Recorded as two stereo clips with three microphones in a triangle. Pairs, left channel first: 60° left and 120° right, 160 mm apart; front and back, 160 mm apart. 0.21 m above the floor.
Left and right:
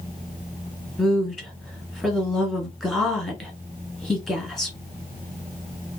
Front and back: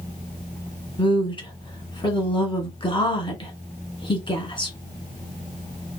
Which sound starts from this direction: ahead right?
A woman speaking, at 1.0 s.